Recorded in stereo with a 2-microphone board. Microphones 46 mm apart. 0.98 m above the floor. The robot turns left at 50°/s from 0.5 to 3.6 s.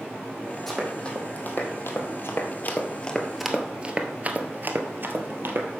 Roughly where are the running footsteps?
Centre.